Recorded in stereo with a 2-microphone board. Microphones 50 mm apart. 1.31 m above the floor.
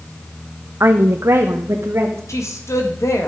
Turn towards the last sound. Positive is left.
turn(degrees=80)